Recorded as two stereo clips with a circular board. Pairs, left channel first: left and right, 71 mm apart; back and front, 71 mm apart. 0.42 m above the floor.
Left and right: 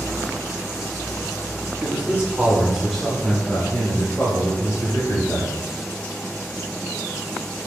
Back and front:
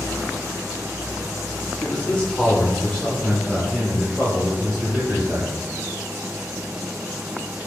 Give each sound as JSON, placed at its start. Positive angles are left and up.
{"t": 1.8, "sound": "a man speaking", "azimuth_deg": -125, "distance_m": 1.1}